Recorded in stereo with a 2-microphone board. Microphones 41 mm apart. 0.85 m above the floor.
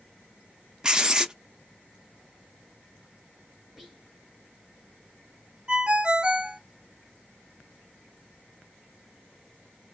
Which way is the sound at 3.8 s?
10° right (ahead or behind).